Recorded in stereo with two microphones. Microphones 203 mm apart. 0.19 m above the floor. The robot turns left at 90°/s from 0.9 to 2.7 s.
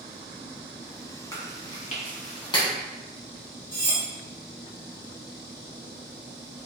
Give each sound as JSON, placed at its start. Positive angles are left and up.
{"t": 1.3, "sound": "chewing", "side_deg": 20, "distance_m": 0.9}
{"t": 3.7, "sound": "cutlery clinking", "side_deg": 55, "distance_m": 1.2}